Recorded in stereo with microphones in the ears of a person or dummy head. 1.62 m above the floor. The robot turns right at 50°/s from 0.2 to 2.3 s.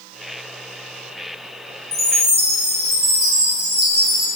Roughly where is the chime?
Centre.